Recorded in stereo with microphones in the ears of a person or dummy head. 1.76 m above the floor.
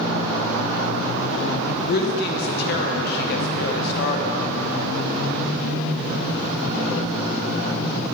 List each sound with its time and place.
1.9 s a woman speaking: 65° left (ahead or behind), 1.9 m